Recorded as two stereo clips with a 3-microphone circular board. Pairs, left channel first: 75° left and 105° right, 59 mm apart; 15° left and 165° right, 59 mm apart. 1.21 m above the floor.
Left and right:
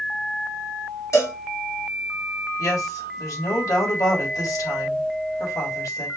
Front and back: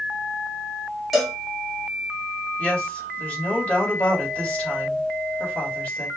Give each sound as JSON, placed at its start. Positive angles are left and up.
{"t": 1.1, "sound": "a cowbell", "azimuth_deg": 105, "distance_m": 1.8}
{"t": 2.6, "sound": "a woman speaking", "azimuth_deg": 85, "distance_m": 3.5}